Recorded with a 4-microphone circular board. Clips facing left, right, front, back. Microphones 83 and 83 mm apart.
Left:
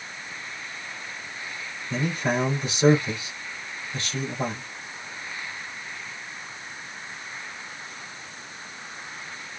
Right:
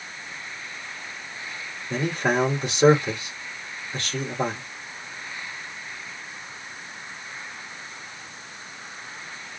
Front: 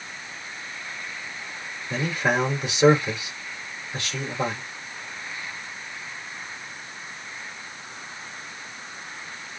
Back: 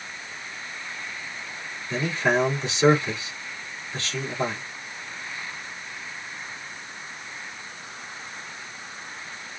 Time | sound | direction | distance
1.9 | a man speaking | 75° right | 3 m